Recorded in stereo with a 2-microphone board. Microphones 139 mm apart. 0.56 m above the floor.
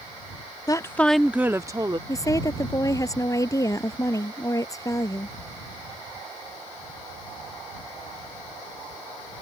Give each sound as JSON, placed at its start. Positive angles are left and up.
{"t": 0.7, "sound": "a woman speaking", "side_deg": 30}
{"t": 2.1, "sound": "a woman speaking", "side_deg": 25}